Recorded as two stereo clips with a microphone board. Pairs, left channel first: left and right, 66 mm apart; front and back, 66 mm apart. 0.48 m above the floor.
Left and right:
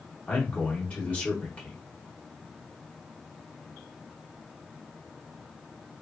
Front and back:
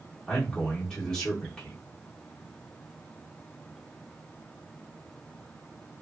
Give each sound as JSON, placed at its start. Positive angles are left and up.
{"t": 0.3, "sound": "a man speaking", "azimuth_deg": 65, "distance_m": 0.8}